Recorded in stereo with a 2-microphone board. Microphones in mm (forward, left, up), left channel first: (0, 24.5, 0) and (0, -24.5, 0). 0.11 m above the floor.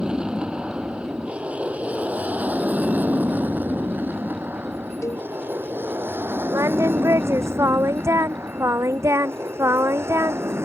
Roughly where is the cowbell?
Left.